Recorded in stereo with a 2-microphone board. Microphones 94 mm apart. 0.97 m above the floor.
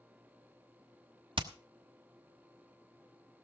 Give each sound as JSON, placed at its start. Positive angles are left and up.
{"t": 1.4, "sound": "hammering", "side_deg": -60, "distance_m": 1.4}